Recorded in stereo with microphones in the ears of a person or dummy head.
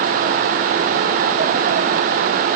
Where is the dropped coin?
No dropped coin in this recording.